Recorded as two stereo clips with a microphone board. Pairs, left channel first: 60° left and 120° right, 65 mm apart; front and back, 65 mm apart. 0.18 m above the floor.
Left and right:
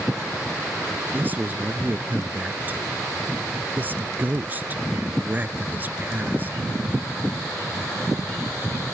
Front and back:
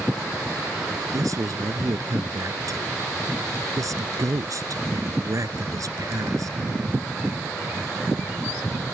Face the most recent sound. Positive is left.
turn(degrees=-175)